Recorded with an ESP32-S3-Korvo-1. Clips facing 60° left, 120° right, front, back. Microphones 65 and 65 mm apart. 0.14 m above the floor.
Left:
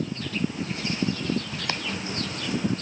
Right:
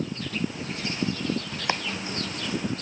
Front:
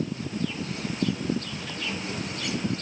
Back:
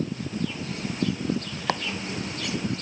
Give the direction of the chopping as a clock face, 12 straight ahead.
6 o'clock.